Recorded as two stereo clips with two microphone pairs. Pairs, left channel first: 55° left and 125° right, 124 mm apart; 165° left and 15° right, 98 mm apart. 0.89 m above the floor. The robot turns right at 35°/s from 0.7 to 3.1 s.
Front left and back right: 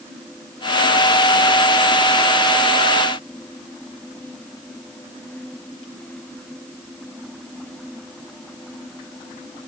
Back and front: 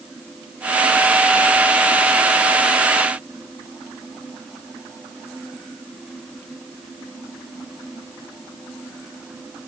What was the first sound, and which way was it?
Only background noise.